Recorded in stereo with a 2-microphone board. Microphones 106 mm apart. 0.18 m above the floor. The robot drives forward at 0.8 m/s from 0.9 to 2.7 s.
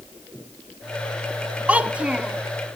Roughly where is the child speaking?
Centre.